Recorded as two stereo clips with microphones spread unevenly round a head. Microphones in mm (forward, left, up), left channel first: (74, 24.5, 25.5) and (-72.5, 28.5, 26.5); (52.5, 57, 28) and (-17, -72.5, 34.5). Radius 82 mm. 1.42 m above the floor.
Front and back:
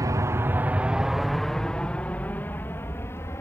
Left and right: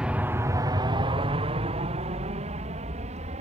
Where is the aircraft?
165° left; by 3.4 s 75° right.